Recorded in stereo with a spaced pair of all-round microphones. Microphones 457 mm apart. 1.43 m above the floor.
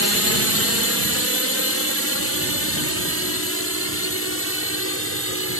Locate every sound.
0.0 s a drone: 30° left (ahead or behind)